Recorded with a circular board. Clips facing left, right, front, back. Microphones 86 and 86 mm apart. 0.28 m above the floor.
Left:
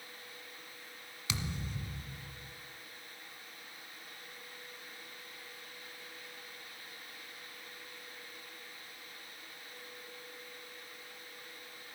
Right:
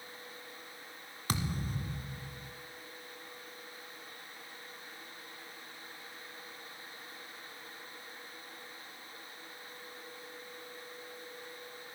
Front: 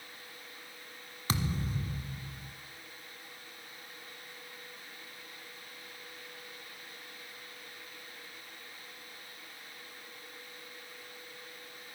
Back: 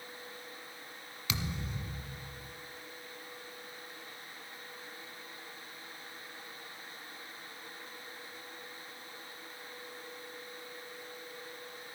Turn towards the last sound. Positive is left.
turn(degrees=-50)